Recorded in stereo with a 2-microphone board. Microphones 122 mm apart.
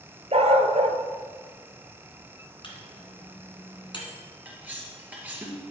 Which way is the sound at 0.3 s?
60° right (ahead or behind).